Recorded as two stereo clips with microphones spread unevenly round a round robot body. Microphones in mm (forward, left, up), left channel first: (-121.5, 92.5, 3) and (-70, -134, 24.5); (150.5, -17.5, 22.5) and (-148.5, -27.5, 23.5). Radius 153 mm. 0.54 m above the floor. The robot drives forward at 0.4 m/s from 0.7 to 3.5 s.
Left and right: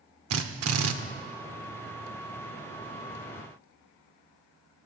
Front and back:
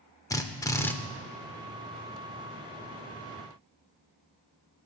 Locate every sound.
0.3 s a drill: 75° right, 1.0 m; by 0.9 s 80° right, 1.0 m